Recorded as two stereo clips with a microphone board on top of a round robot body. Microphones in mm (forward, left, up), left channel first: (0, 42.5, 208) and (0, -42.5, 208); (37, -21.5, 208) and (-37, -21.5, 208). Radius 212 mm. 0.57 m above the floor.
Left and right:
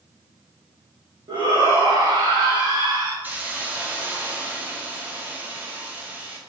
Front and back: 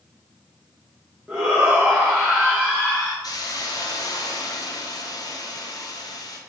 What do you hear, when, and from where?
1.3 s a shout: 105° right, 1.9 m
3.2 s a hiss: 20° right, 1.4 m